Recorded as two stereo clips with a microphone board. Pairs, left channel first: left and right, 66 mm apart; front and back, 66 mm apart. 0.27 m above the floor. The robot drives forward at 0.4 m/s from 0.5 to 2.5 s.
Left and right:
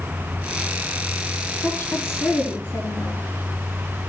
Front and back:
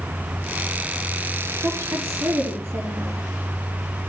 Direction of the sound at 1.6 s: 150° left.